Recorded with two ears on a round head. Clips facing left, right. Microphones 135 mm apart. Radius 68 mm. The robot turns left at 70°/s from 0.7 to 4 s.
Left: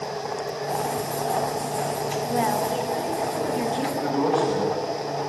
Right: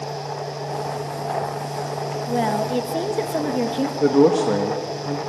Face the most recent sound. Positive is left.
turn(degrees=-60)  # may be behind; listen again after turning